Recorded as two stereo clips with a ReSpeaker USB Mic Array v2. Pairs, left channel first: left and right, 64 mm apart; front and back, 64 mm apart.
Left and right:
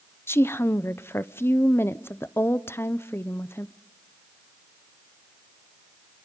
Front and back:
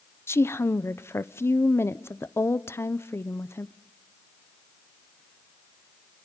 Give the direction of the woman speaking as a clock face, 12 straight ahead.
11 o'clock.